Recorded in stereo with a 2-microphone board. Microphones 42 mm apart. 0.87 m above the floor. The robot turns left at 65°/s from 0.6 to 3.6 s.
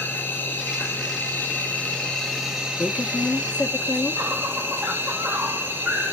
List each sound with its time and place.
0.0 s an insect: 120° left, 3.5 m; by 6.1 s 75° right, 3.5 m
2.8 s a woman speaking: 90° left, 1.1 m; by 4.2 s 40° left, 1.1 m